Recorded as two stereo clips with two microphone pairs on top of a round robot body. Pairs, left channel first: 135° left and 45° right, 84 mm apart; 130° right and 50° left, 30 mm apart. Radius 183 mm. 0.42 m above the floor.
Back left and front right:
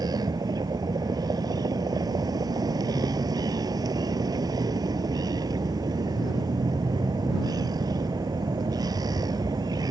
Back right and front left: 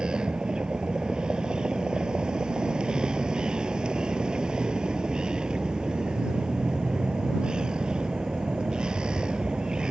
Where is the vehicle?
5° right.